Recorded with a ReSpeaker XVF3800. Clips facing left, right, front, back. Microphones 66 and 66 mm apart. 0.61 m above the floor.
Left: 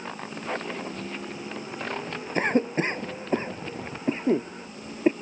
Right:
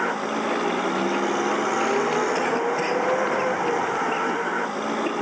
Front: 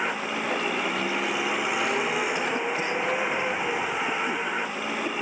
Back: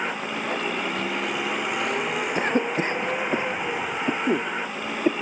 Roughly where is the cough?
Behind left.